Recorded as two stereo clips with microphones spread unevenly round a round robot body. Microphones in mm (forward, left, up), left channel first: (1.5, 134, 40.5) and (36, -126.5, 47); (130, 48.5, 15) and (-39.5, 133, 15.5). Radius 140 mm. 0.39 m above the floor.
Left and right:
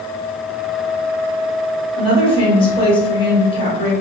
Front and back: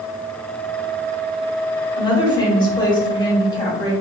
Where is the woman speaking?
35° left, 1.6 m.